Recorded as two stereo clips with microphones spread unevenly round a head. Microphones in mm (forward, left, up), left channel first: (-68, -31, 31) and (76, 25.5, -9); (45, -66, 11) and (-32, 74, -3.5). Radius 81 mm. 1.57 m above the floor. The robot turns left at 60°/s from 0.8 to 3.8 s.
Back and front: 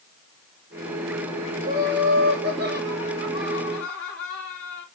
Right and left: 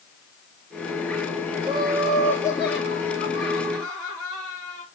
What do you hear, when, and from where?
1.6 s laughter: 60° left, 3.5 m; by 4.8 s 70° right, 3.5 m